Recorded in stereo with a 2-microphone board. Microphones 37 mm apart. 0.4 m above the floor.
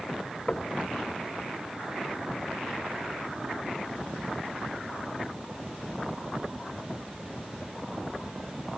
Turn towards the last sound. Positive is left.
turn(degrees=35)  # may be behind; listen again after turning